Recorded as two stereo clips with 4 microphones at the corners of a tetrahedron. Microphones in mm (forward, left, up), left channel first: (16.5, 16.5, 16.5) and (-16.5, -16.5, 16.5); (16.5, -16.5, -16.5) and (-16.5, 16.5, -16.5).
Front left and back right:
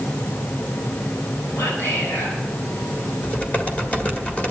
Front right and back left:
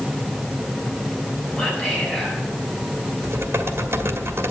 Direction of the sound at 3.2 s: 100° left.